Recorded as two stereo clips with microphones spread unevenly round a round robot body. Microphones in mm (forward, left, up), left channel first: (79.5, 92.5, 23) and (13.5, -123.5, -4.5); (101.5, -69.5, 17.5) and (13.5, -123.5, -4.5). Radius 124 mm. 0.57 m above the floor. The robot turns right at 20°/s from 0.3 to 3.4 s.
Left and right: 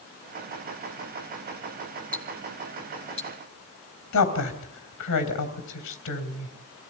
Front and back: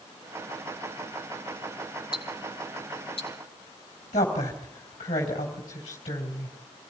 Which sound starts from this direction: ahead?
Ticking, at 2.1 s.